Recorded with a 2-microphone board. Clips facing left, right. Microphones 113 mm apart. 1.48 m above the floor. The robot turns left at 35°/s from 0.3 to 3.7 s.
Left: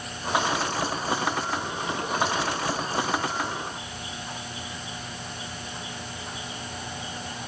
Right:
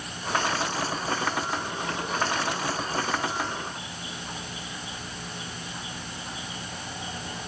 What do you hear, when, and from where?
Only background noise.